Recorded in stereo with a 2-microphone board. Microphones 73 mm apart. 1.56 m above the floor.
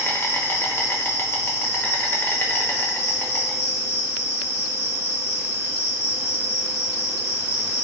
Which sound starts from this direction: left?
An insect, at 0.0 s.